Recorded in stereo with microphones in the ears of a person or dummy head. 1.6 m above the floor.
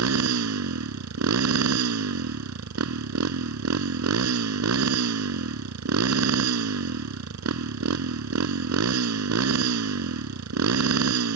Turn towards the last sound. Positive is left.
turn(degrees=-80)